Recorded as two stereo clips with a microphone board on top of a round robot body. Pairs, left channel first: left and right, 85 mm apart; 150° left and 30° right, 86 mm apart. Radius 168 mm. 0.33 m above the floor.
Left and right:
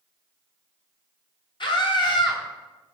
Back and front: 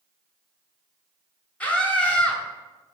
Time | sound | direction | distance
1.6 | a scream | 75° left | 2.5 m